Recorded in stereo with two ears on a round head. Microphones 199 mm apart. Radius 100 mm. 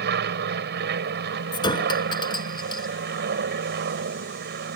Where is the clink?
20° left (ahead or behind).